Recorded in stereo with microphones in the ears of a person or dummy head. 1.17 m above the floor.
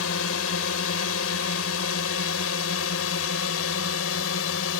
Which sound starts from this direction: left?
A drone, at 0.0 s.